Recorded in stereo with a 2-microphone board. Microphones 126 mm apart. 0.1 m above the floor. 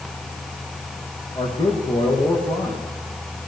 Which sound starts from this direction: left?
A man speaking, at 1.4 s.